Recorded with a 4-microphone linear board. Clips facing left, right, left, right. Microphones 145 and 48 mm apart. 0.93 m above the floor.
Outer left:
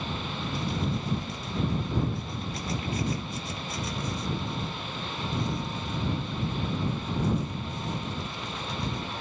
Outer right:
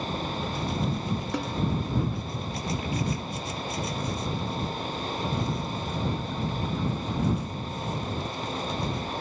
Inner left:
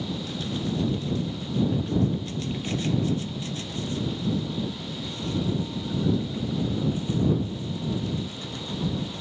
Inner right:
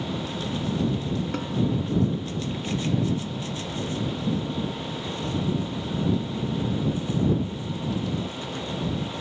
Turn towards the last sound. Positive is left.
turn(degrees=-75)  # may be behind; listen again after turning